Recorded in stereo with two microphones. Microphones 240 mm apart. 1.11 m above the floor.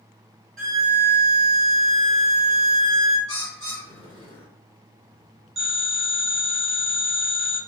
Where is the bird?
60° right (ahead or behind), 1.3 m.